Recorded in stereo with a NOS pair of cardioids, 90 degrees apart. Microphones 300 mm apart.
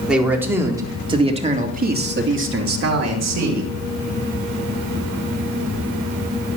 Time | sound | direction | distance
0.1 | a man speaking | 5° right | 3.5 m